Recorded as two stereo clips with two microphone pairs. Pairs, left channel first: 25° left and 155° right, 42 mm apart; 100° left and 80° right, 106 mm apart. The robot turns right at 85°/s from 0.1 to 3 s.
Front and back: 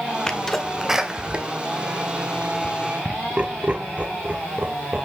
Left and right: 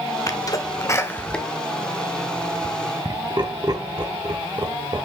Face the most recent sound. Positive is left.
turn(degrees=-105)